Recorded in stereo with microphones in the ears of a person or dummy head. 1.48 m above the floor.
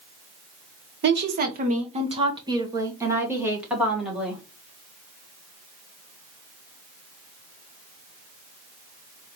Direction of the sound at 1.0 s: 60° right (ahead or behind).